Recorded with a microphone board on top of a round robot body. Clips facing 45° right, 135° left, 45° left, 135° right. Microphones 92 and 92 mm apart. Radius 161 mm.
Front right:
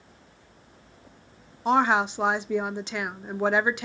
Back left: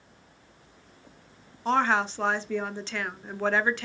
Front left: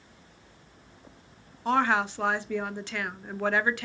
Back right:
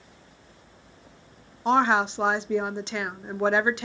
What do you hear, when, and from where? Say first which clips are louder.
1.6 s a woman speaking: front right 3 dB, back right 3 dB; 100° right, 1.0 m